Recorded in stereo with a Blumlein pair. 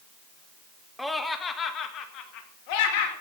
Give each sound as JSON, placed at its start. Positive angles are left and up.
{"t": 1.0, "sound": "laughter", "azimuth_deg": 5, "distance_m": 1.4}